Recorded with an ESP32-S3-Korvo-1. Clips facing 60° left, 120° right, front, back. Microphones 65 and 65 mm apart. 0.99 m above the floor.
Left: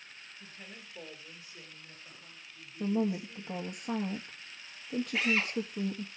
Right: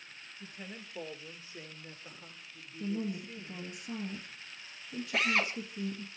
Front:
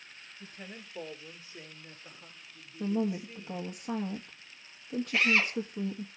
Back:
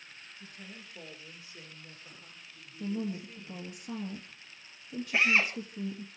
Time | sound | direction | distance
0.4 | a woman speaking | 45° right | 3 m
2.8 | a woman speaking | 45° left | 1.7 m
5.1 | a drill | 115° right | 5 m